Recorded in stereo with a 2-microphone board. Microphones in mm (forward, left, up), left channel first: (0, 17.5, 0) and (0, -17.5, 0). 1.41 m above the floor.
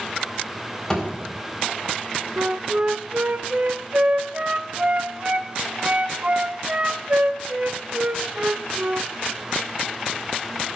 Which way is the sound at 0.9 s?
15° left (ahead or behind).